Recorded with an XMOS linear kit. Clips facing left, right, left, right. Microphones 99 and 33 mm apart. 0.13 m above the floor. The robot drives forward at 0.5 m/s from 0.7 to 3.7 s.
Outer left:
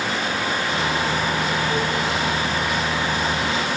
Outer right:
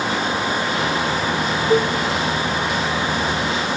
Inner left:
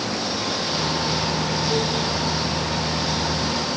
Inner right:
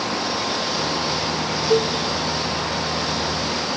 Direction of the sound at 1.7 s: 60° right (ahead or behind).